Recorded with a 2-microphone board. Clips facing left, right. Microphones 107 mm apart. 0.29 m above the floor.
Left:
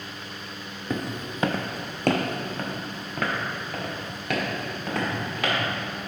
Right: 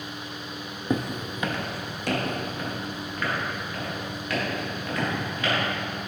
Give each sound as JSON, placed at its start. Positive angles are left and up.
{"t": 0.9, "sound": "footsteps", "side_deg": -15, "distance_m": 0.5}